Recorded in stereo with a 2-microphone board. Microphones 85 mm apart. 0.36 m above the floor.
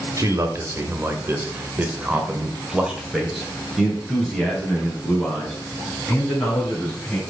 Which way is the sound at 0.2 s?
40° right (ahead or behind).